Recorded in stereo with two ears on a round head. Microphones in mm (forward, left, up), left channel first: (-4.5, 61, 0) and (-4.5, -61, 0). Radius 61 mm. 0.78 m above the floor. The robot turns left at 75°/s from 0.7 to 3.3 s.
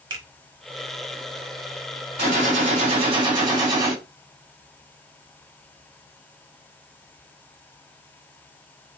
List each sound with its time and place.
0.1 s a finger snap: 35° right (ahead or behind), 1.2 m
2.2 s a gunshot: 65° right, 1.6 m; by 4.0 s 145° right, 1.6 m